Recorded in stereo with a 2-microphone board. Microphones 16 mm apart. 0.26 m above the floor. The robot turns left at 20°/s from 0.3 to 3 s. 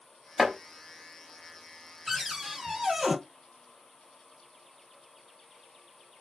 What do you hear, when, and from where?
0.4 s chopping: 15° right (ahead or behind), 1.1 m; by 0.5 s 10° right (ahead or behind), 1.1 m
2.1 s a cupboard door: 10° right (ahead or behind), 1.0 m; by 3.2 s 30° right (ahead or behind), 1.0 m